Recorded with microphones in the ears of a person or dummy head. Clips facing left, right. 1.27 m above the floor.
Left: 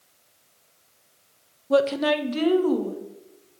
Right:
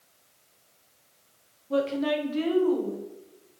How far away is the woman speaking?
About 0.6 m.